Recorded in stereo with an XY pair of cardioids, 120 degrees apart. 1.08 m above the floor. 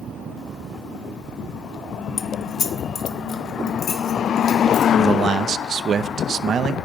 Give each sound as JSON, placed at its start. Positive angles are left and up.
{"t": 2.2, "sound": "keys jangling", "azimuth_deg": 35, "distance_m": 0.9}
{"t": 5.0, "sound": "a man speaking", "azimuth_deg": -45, "distance_m": 0.7}